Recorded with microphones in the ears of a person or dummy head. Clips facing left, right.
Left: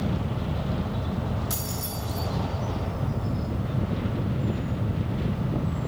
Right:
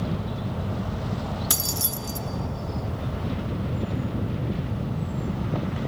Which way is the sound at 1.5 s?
80° right.